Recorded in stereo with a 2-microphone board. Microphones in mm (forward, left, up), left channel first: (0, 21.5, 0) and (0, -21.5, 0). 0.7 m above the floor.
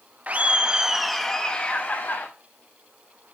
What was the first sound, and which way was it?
Laughter, 35° right (ahead or behind).